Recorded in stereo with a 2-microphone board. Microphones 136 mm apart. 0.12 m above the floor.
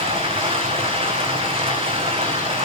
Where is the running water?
45° right (ahead or behind), 2.5 m.